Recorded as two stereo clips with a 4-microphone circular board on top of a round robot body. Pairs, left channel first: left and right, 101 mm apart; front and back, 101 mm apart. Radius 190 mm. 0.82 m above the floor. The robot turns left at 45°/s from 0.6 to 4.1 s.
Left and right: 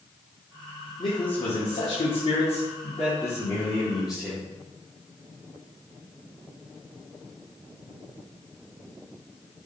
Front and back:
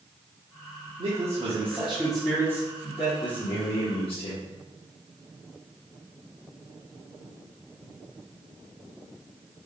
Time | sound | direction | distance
1.0 | a man speaking | 135° left | 2 m